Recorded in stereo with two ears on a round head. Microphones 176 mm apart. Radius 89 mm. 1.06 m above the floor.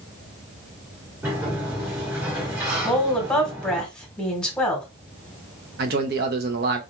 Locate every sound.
1.2 s a sliding door: 15° right (ahead or behind), 1.4 m
2.8 s a woman speaking: 5° left (ahead or behind), 1.3 m
5.8 s a man speaking: 50° right (ahead or behind), 0.7 m